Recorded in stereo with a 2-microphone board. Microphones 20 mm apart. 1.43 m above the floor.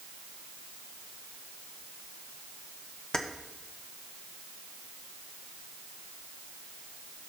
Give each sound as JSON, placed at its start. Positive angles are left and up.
{"t": 3.1, "sound": "keys jangling", "side_deg": 35, "distance_m": 0.8}